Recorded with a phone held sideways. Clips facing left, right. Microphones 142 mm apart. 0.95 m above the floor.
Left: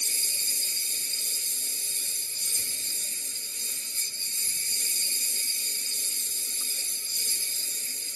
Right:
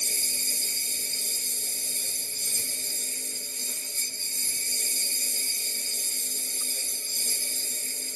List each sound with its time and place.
0.0 s a lawn mower: 50° right (ahead or behind)